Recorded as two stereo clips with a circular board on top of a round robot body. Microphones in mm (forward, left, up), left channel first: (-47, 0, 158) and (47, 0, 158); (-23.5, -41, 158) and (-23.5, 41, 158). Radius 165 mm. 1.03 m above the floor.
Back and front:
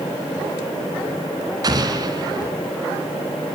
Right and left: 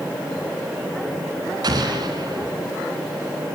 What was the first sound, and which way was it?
An explosion, 50° left.